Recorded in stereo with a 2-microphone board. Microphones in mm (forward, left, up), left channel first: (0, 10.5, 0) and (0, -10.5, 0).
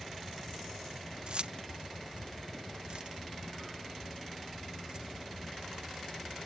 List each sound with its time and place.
1.3 s keys jangling: 45° right (ahead or behind)